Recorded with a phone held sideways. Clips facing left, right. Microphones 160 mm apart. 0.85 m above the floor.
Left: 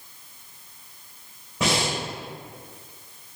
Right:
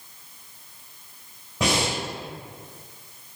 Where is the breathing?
Centre (ahead or behind), 1.6 m.